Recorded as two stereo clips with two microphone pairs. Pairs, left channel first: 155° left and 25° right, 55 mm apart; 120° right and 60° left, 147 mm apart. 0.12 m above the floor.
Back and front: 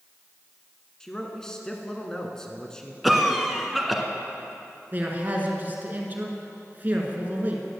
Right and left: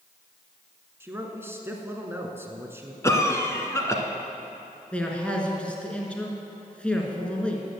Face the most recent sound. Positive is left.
turn(degrees=-40)